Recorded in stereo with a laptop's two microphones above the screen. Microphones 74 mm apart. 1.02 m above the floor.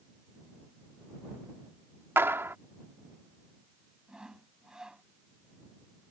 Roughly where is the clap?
Right.